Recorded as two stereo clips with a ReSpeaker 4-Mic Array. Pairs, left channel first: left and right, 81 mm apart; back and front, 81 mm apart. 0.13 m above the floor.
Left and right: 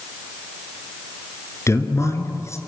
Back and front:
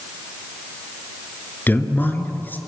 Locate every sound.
1.7 s a man speaking: 125° left, 2 m